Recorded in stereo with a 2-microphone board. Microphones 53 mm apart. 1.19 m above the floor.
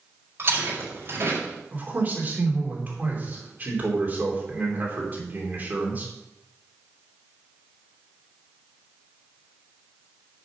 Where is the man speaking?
30° right (ahead or behind), 3.5 m.